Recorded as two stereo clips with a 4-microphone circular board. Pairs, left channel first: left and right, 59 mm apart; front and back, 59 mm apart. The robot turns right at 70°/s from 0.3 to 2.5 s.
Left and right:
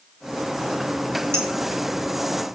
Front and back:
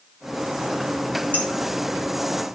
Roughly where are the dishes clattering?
Ahead right.